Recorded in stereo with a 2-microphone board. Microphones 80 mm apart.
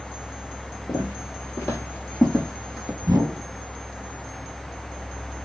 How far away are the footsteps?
About 1.7 m.